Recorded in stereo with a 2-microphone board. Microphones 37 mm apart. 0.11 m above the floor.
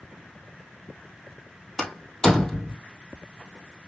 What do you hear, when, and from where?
1.8 s a door slam: 20° left (ahead or behind), 2.5 m